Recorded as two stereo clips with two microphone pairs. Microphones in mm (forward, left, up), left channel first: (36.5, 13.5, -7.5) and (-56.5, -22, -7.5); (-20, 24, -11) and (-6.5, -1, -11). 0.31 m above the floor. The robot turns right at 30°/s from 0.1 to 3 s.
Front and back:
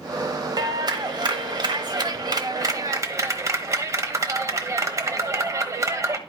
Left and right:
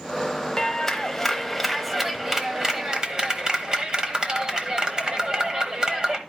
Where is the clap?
175° left, 1.0 m; by 6.2 s 115° right, 1.0 m.